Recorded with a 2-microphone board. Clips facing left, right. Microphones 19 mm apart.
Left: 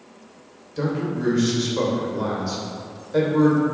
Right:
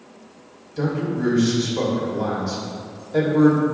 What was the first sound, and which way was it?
A man speaking, 15° left (ahead or behind).